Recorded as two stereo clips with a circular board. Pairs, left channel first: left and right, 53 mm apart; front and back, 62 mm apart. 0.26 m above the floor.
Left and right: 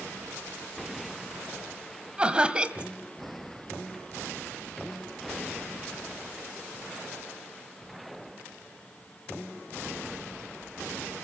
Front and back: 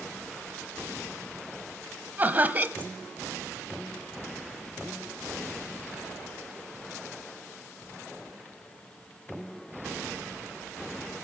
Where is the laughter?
145° right, 1.1 m.